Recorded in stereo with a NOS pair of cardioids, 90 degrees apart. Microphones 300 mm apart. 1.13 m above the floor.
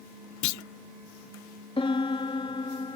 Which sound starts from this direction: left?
A clunk, at 0.4 s.